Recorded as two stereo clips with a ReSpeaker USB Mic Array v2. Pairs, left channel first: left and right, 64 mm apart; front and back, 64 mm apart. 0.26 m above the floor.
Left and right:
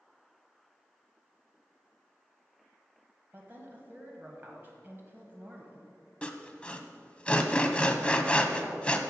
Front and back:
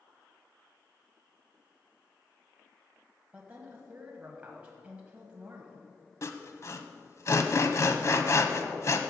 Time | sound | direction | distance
3.3 | a woman speaking | 120° right | 1.3 m
6.2 | sawing | 25° left | 0.8 m